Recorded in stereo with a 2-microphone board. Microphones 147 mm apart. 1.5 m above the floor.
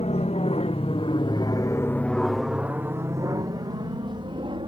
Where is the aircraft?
50° left (ahead or behind); by 4.7 s 35° right (ahead or behind).